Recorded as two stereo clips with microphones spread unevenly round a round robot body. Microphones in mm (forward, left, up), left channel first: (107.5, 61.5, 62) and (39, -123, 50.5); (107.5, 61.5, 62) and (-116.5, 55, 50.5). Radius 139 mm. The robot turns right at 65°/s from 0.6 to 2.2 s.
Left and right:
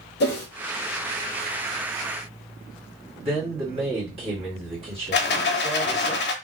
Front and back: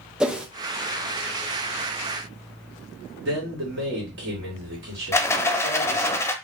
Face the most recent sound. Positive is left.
turn(degrees=80)